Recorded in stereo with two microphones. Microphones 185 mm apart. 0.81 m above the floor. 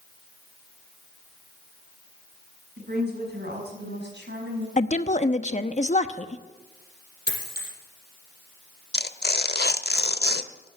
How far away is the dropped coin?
About 4.5 m.